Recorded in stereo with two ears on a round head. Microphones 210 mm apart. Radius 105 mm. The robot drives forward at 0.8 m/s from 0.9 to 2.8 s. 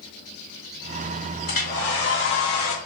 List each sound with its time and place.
1.5 s a hair dryer: 40° left (ahead or behind), 1.4 m; by 2.8 s 65° left (ahead or behind), 1.0 m